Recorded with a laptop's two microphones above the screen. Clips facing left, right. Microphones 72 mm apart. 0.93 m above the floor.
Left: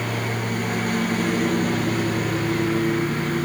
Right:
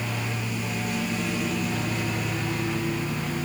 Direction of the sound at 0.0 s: 55° left (ahead or behind).